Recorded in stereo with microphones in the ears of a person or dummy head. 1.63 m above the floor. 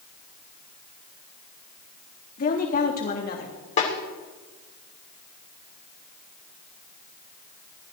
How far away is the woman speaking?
About 3 m.